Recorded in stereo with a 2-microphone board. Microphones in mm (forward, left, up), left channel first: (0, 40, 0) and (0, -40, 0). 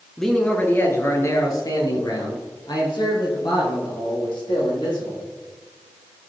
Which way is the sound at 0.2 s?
5° left (ahead or behind).